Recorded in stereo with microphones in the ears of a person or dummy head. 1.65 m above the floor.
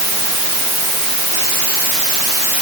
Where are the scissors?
I don't hear scissors.